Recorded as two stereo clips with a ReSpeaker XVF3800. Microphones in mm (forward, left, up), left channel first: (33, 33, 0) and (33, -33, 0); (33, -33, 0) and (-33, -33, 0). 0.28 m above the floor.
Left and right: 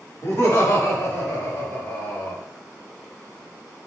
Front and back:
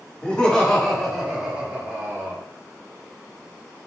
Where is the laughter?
60° left, 1.5 m; by 2.4 s 135° left, 1.6 m.